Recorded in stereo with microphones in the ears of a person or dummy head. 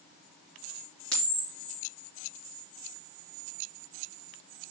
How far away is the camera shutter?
About 4 m.